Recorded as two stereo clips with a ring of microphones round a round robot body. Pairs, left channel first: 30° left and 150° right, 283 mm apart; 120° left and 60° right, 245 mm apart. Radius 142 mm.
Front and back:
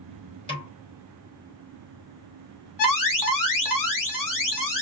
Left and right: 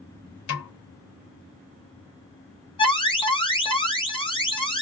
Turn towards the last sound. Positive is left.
turn(degrees=50)